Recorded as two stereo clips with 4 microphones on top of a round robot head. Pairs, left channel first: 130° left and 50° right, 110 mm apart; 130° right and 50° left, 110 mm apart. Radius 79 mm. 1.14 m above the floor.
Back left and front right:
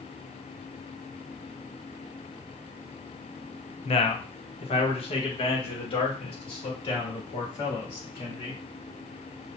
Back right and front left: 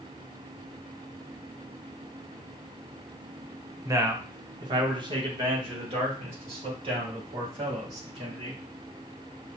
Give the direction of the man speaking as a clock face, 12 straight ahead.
8 o'clock.